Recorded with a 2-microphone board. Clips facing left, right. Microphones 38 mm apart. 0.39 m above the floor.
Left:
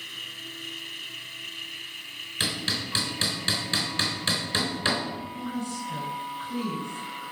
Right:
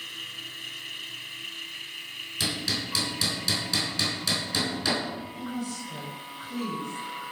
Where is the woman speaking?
45° left (ahead or behind), 3.5 m.